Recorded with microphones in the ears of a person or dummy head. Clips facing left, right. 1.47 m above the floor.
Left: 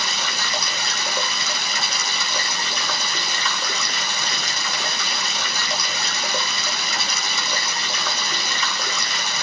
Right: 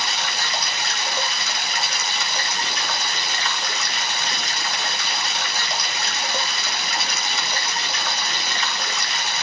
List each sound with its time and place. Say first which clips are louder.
0.0 s running water: even; 85° left, 1.4 m